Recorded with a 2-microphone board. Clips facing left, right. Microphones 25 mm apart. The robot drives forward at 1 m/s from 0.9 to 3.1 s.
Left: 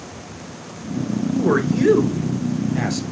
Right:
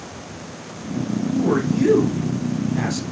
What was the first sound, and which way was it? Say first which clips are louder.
A man speaking: left 1 dB; 30° left (ahead or behind).